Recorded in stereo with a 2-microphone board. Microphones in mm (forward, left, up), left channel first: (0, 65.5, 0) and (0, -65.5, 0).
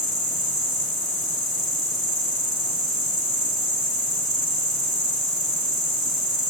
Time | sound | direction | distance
0.0 | an insect | 40° left (ahead or behind) | 1.5 m